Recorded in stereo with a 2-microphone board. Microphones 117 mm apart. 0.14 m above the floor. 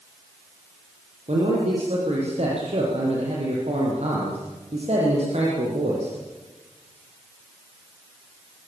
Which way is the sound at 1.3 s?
70° right (ahead or behind).